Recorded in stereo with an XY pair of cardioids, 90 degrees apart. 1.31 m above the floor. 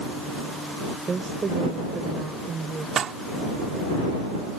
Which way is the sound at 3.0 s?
65° right.